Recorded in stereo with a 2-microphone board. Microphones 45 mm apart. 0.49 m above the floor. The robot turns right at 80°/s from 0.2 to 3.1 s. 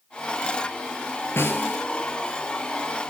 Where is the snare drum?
110° left, 1.6 m; by 1.8 s 145° left, 1.6 m.